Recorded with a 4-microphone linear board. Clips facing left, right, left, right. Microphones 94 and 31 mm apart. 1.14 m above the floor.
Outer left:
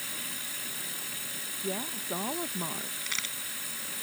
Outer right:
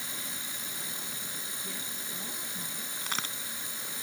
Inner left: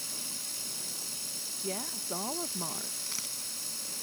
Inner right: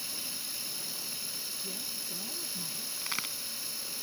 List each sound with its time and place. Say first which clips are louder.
0.0 s running water: even, inner right 1 dB; 20° right (ahead or behind)
1.6 s a woman speaking: outer left 8 dB, inner left 3 dB; 75° left (ahead or behind)
3.0 s a crack: outer right 4 dB, inner right 4 dB; 50° right (ahead or behind)